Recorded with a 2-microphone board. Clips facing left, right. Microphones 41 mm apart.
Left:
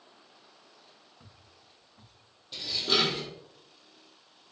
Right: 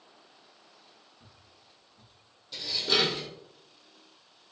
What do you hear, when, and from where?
1.2 s footsteps: 85° left, 3.5 m
2.5 s dishes clattering: 15° left (ahead or behind), 2.5 m